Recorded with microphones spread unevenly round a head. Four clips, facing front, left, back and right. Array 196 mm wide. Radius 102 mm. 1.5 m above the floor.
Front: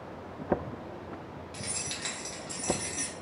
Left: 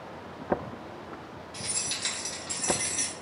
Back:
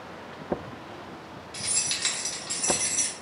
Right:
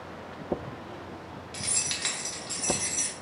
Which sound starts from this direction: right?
Keys jangling, at 1.5 s.